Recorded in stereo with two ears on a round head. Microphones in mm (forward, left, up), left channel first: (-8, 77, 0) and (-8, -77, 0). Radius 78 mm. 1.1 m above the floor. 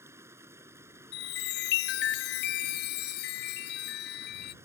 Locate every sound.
0.0 s running water: 15° right (ahead or behind)
1.1 s a chime: 70° left (ahead or behind)